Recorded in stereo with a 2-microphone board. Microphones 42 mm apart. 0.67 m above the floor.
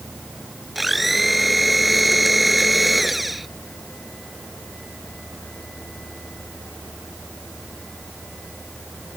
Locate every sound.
0.8 s a blender: 5° right (ahead or behind)